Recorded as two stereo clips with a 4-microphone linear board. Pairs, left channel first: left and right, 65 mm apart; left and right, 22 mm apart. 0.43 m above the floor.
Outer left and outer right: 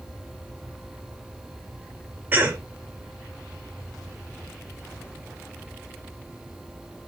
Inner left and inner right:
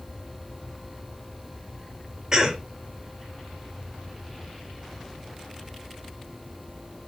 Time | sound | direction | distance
2.3 | a cough | 30° right (ahead or behind) | 1.6 m